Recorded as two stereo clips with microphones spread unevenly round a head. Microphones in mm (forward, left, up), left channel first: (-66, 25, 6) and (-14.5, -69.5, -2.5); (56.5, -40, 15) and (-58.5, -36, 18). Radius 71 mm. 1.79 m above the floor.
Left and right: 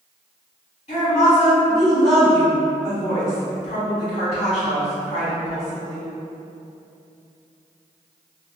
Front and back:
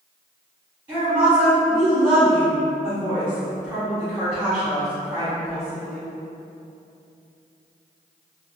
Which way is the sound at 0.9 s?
115° left.